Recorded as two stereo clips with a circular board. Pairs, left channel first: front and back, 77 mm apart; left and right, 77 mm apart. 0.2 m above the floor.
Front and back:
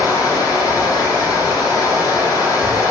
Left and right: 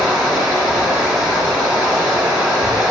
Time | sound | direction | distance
0.0 | running water | 15° right | 1.4 m